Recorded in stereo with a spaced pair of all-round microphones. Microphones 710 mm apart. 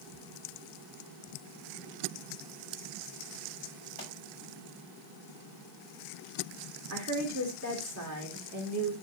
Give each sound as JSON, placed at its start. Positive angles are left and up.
{"t": 4.0, "sound": "a pop", "side_deg": 80, "distance_m": 6.0}
{"t": 6.9, "sound": "a woman speaking", "side_deg": -25, "distance_m": 2.5}